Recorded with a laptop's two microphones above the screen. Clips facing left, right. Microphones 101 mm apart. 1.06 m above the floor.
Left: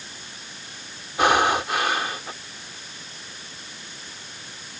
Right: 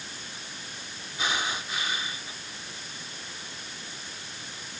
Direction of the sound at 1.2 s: 70° left (ahead or behind).